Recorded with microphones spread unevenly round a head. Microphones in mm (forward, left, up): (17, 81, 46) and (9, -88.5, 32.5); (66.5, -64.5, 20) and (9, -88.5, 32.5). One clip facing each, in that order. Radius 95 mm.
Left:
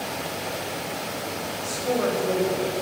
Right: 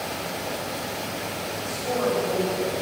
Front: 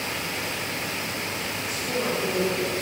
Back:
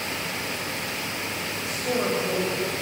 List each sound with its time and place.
1.6 s a woman speaking: 145° left, 7 m